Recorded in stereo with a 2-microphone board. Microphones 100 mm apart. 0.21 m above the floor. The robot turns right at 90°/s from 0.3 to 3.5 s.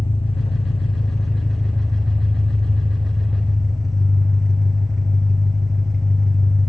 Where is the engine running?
70° left, 4 m; by 6.7 s 5° right, 4 m.